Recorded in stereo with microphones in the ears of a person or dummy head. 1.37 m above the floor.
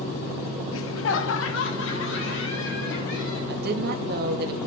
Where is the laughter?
65° left (ahead or behind), 0.7 m.